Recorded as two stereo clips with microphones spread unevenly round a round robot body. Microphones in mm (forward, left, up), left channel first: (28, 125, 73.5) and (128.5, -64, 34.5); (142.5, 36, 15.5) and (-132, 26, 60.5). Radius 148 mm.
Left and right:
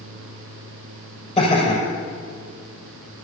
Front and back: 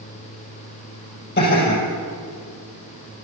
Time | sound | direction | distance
1.4 | laughter | 55° left | 5.5 m